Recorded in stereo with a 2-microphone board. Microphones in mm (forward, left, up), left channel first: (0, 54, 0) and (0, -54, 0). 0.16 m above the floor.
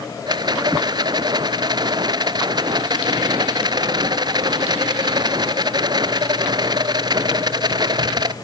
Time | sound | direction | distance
0.3 | a rattle | 40° right (ahead or behind) | 0.7 m